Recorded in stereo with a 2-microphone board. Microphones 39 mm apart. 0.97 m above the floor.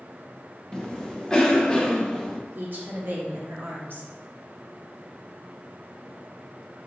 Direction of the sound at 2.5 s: 55° right (ahead or behind).